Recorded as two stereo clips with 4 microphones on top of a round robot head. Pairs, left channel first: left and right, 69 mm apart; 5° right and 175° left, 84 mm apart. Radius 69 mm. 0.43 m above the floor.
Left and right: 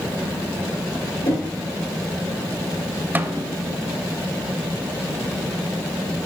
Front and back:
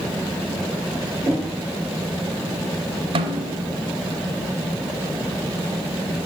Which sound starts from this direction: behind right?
A snare drum, at 3.1 s.